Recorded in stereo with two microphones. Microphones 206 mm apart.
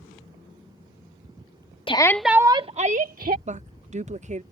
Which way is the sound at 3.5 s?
35° right (ahead or behind).